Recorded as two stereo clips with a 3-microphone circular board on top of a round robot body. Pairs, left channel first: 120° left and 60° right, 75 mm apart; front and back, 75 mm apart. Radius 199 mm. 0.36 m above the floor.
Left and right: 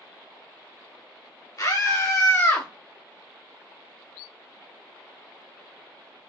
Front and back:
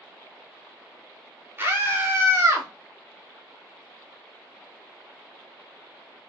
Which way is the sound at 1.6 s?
130° left.